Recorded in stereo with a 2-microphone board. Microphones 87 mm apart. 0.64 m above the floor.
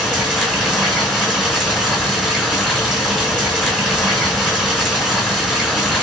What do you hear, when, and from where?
0.0 s running water: 5° right (ahead or behind), 1.3 m